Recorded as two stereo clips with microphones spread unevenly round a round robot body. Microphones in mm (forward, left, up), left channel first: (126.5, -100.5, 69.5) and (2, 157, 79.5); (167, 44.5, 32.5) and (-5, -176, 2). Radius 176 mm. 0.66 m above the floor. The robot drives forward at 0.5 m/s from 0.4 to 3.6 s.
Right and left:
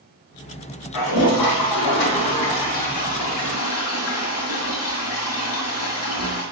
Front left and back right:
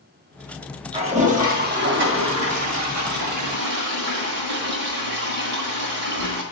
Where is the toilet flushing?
55° right, 1.5 m; by 6.4 s 115° right, 1.3 m.